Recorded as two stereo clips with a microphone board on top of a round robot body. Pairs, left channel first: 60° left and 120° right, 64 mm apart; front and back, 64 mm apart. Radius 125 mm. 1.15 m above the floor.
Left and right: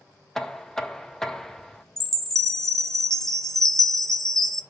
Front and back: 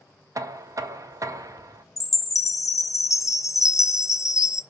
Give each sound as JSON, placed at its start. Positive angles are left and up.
{"t": 0.3, "sound": "knocking", "azimuth_deg": 145, "distance_m": 0.8}
{"t": 2.0, "sound": "a chime", "azimuth_deg": -20, "distance_m": 0.7}